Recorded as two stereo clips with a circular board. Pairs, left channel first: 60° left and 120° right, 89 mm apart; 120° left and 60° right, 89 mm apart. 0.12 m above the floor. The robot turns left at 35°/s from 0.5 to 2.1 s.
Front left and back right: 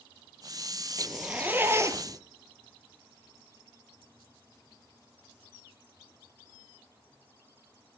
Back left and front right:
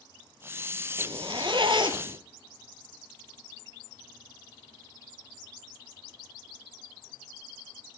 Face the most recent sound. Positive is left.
turn(degrees=-75)